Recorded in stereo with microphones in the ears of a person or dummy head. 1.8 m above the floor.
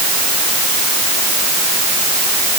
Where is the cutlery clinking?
No cutlery clinking in this recording.